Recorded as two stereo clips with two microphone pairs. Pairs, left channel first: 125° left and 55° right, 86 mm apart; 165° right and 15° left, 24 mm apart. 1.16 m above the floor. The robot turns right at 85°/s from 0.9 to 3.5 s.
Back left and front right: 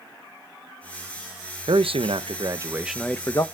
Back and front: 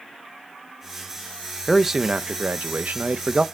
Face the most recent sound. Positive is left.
turn(degrees=75)